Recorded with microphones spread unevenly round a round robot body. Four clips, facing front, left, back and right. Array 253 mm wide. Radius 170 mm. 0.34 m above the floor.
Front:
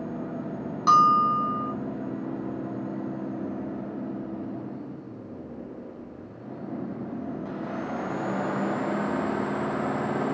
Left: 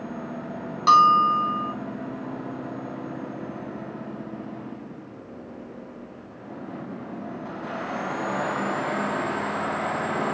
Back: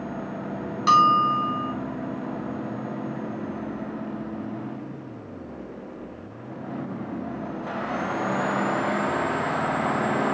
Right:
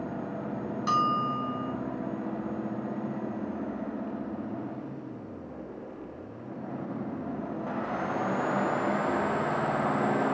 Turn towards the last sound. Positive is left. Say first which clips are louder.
# left 11 dB, back 1 dB
turn(degrees=90)